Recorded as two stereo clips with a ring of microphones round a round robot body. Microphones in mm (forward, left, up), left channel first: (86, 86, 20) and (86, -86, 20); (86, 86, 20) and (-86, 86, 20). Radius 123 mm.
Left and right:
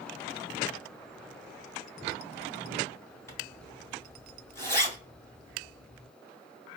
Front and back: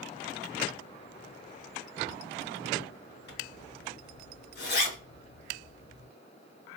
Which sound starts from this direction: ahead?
A zipper, at 3.3 s.